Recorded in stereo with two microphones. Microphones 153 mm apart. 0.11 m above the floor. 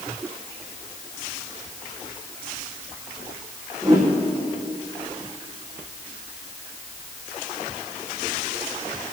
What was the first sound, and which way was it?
A whoosh, 20° right (ahead or behind).